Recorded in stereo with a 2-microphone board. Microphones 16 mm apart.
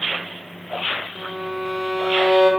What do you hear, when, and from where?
1.1 s a violin: 10° right (ahead or behind), 0.6 m